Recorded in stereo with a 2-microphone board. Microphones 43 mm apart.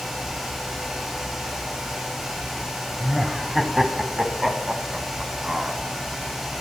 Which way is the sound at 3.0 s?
5° right (ahead or behind).